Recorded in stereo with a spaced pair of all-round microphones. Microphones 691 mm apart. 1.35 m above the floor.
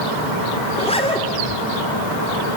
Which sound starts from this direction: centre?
A zipper, at 0.7 s.